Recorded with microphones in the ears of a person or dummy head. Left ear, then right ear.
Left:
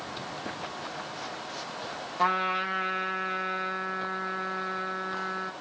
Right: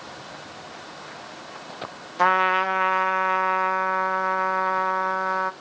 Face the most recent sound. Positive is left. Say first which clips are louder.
# right 7 dB
turn(degrees=-40)  # may be behind; listen again after turning